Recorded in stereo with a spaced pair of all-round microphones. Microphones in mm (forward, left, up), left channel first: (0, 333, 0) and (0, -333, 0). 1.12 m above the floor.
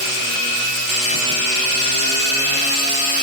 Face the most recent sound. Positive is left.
No sound to turn to.